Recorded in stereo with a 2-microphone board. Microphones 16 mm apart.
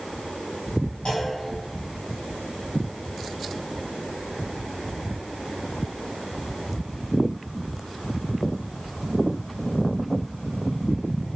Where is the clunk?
80° left, 0.8 m.